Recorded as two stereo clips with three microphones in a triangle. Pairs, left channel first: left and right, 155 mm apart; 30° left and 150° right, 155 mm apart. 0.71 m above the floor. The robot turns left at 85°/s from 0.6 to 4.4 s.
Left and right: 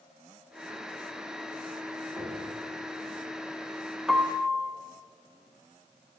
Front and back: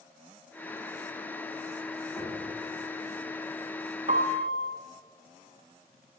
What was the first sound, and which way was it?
Knocking, 35° right.